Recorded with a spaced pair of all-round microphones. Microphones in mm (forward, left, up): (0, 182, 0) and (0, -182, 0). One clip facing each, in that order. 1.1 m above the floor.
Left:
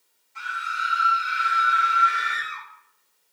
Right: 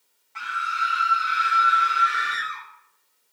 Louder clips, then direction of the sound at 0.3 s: Right 3 dB; 75° right (ahead or behind).